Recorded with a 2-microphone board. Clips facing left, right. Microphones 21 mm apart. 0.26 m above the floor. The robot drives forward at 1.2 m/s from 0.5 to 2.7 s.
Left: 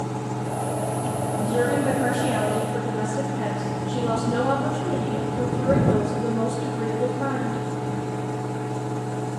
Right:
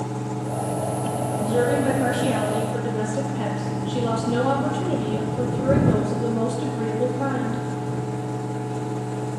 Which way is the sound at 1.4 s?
25° right (ahead or behind).